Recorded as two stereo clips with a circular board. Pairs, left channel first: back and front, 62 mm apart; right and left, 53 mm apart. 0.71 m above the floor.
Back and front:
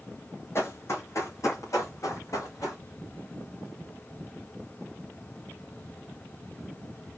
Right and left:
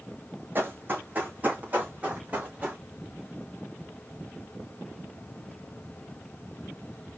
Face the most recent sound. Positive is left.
turn(degrees=155)